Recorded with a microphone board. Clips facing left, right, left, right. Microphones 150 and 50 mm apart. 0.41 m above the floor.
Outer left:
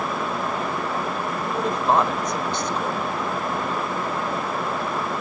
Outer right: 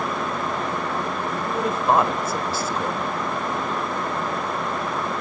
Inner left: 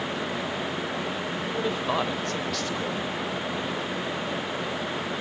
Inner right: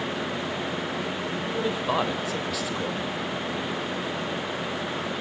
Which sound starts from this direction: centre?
A man speaking, at 1.4 s.